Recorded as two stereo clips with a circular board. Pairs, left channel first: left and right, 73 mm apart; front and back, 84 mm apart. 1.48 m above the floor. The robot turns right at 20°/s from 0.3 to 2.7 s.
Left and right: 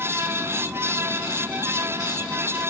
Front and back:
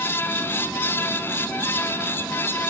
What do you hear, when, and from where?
Only background noise.